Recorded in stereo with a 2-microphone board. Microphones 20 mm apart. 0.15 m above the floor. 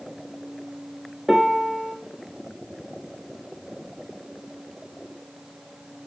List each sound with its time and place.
1.3 s a piano: 25° right (ahead or behind), 1.3 m